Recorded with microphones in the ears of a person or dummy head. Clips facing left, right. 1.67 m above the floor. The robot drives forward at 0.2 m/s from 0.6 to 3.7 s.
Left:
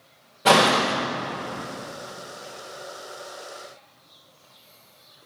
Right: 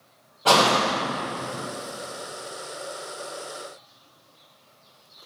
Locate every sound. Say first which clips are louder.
0.5 s a door slam: left 2 dB; 25° left (ahead or behind), 1.0 m